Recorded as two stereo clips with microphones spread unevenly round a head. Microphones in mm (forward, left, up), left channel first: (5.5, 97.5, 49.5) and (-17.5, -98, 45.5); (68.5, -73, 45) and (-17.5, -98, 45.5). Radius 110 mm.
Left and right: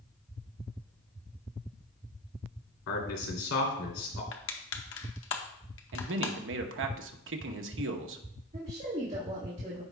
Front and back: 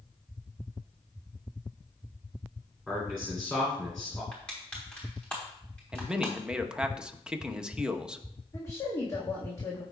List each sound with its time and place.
2.9 s a man speaking: 100° left, 3 m
4.3 s crushing: 100° left, 0.8 m
5.9 s a man speaking: 85° right, 1.0 m
8.5 s a woman speaking: 40° right, 1.6 m